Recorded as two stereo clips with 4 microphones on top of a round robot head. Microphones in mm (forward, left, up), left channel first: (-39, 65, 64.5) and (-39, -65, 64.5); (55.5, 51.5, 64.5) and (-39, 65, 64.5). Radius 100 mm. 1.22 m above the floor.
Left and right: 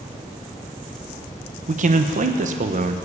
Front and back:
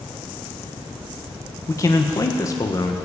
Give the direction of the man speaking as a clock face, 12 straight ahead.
2 o'clock.